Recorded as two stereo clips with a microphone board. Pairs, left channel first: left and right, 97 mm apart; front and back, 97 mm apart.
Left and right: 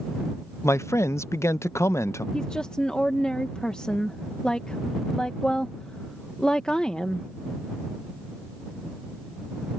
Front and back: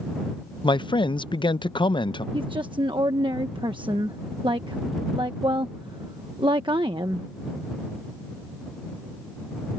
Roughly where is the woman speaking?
Behind.